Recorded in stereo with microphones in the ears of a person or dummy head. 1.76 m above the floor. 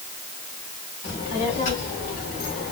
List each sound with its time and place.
1.0 s a child speaking: 40° left (ahead or behind), 2 m; by 2.7 s 45° left (ahead or behind), 1.4 m